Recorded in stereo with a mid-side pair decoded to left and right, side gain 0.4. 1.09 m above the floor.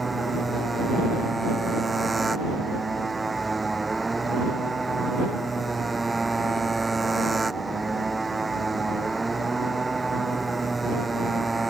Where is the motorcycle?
20° right.